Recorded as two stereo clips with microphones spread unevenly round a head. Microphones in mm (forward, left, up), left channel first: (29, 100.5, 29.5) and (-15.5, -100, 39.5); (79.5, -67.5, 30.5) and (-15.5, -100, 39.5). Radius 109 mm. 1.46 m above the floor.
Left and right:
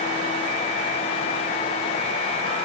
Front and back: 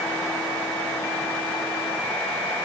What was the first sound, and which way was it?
Only background noise.